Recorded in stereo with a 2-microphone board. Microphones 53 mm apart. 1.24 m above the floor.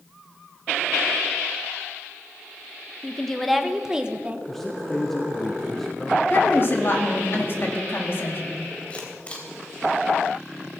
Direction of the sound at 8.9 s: 25° left (ahead or behind).